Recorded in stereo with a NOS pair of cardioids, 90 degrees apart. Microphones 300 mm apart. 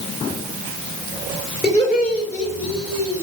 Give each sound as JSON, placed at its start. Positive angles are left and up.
{"t": 1.6, "sound": "laughter", "azimuth_deg": 20, "distance_m": 4.0}